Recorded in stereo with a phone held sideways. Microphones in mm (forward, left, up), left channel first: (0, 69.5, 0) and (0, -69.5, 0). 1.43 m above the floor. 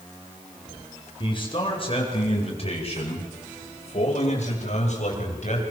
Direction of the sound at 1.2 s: 35° left (ahead or behind).